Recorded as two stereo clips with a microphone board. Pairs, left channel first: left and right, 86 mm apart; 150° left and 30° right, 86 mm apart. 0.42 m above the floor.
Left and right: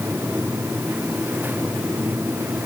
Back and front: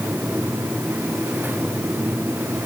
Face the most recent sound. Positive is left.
No sound to turn to.